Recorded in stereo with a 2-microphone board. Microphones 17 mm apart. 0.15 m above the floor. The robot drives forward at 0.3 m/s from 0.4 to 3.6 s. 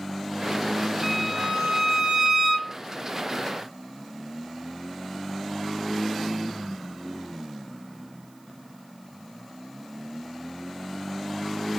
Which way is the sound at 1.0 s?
20° right (ahead or behind).